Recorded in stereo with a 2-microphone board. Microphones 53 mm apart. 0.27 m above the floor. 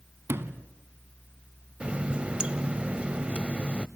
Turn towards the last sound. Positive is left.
turn(degrees=-20)  # may be behind; listen again after turning